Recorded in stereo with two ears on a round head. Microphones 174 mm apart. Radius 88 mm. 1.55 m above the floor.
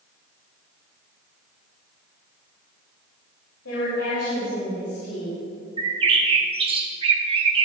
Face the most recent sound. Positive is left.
turn(degrees=-25)  # may be behind; listen again after turning